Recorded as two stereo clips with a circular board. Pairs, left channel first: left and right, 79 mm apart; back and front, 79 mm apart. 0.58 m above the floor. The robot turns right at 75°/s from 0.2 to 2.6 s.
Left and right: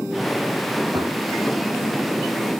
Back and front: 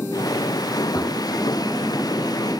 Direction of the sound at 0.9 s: 125° right.